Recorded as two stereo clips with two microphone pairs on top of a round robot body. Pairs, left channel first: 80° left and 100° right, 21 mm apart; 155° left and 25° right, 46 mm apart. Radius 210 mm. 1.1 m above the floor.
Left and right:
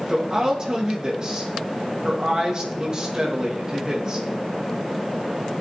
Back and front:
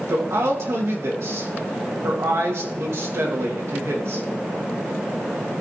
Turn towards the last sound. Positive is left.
turn(degrees=-45)